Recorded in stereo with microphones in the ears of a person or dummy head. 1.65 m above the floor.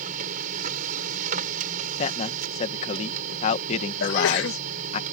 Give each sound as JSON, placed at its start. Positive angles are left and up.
{"t": 0.0, "sound": "a machine running", "side_deg": -50}
{"t": 2.0, "sound": "a man speaking", "side_deg": 40}
{"t": 4.0, "sound": "a sneeze", "side_deg": 80}